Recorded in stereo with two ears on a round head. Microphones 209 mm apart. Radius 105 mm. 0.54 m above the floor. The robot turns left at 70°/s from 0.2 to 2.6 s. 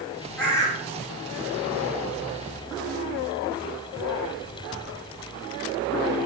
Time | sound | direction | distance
0.4 | a bird | straight behind | 7.5 m